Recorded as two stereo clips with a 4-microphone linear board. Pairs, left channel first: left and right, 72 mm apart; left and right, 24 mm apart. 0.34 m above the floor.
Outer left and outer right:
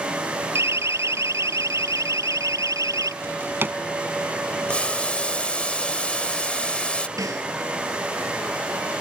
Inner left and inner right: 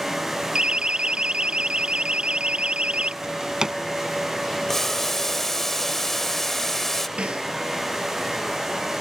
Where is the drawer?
30° right (ahead or behind).